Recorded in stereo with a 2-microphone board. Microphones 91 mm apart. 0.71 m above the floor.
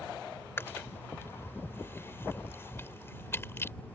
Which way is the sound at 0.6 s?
25° left (ahead or behind).